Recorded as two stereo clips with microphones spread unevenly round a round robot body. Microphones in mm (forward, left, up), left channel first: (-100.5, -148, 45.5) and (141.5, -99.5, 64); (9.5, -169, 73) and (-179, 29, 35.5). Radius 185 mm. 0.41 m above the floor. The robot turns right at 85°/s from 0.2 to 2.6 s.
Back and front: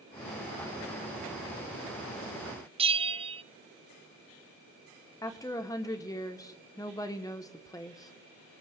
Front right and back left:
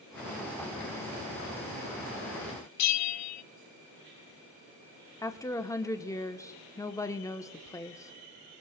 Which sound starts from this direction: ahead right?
A bell, at 2.8 s.